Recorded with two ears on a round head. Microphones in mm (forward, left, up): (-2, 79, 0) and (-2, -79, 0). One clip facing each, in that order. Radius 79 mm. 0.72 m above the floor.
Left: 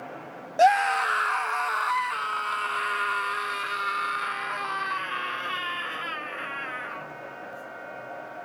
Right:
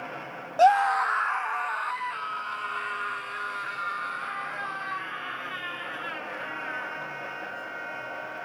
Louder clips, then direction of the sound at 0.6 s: Even; 15° left (ahead or behind).